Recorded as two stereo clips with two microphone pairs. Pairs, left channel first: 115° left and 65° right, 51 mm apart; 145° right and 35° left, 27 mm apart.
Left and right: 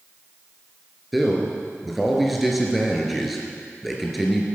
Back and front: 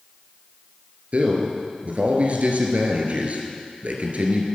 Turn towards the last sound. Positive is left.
turn(degrees=20)